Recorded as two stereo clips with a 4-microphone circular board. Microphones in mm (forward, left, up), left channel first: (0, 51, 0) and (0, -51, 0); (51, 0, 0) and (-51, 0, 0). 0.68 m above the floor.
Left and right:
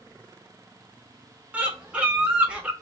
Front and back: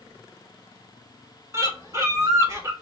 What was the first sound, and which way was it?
A bird, 155° right.